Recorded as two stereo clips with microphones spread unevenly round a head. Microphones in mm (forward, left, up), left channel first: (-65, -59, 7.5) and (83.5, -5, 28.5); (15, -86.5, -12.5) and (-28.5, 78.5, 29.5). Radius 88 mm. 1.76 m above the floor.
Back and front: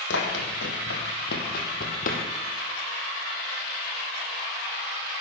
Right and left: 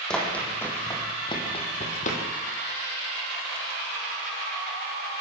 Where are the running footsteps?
165° right, 5 m; by 2.2 s 120° right, 4 m.